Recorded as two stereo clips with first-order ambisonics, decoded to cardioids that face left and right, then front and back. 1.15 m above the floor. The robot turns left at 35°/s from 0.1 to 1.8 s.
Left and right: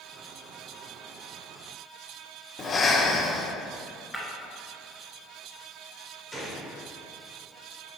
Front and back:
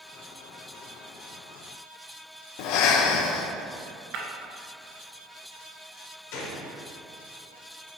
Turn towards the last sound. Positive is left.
turn(degrees=0)